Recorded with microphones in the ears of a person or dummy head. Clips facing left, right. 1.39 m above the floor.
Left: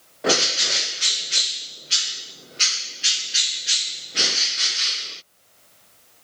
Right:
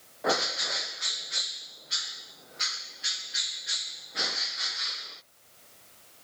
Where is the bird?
40° left (ahead or behind).